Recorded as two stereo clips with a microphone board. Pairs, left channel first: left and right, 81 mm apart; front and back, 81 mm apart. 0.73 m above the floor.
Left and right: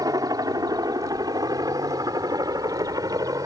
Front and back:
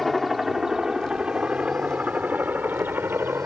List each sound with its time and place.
0.0 s a helicopter: 90° right; by 3.5 s 120° right